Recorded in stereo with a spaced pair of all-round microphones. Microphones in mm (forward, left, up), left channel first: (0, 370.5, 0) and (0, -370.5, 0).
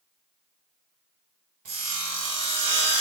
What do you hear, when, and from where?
1.6 s sawing: 60° right (ahead or behind), 1.0 m